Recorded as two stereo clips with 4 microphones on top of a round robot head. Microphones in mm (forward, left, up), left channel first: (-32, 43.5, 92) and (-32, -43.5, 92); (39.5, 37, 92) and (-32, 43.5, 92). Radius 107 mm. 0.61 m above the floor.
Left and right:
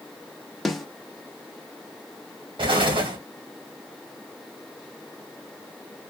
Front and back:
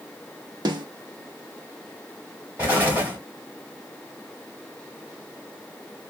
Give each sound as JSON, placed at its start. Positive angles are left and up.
{"t": 0.7, "sound": "a snare drum", "azimuth_deg": 180, "distance_m": 0.8}
{"t": 2.6, "sound": "an explosion", "azimuth_deg": -110, "distance_m": 2.0}